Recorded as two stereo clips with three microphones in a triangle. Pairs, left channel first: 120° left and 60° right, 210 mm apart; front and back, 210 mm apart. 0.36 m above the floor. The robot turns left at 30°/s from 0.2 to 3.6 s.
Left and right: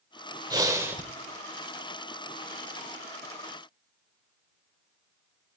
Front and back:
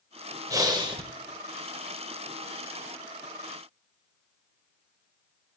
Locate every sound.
0.5 s breathing: 120° right, 1.3 m; by 1.0 s 135° right, 1.3 m